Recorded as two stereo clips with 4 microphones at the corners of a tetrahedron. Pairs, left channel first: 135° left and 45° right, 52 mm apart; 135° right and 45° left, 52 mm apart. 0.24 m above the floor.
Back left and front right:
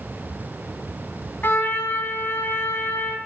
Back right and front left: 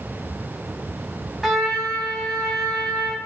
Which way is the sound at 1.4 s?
130° left.